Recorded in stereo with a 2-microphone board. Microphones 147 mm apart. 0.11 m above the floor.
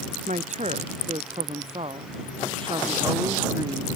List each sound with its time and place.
0.3 s a woman speaking: 55° right (ahead or behind); by 3.9 s 25° right (ahead or behind)